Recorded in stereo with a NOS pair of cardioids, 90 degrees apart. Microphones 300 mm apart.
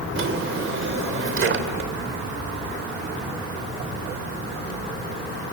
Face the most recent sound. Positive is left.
turn(degrees=-45)